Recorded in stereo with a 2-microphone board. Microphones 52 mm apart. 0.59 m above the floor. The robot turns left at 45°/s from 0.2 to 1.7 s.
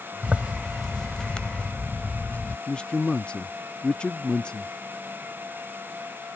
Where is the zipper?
150° right; by 2.6 s 145° left.